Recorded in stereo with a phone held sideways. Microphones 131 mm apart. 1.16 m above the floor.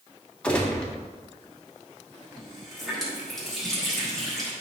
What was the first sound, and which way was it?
A gunshot, 5° left (ahead or behind).